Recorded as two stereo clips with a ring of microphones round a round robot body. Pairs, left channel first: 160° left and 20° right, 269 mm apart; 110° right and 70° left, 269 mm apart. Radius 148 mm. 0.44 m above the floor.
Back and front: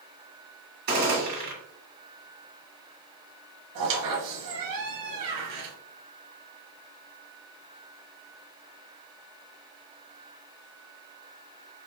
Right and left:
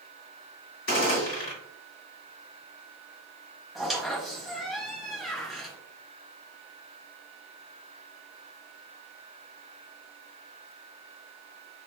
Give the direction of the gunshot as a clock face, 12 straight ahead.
2 o'clock.